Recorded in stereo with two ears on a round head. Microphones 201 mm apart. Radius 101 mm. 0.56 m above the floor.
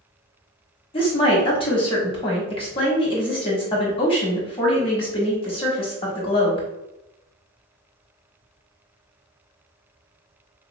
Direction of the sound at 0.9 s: 25° left (ahead or behind).